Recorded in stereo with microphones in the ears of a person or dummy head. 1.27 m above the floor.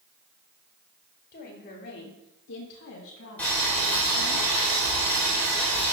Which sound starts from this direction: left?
A woman speaking, at 1.3 s.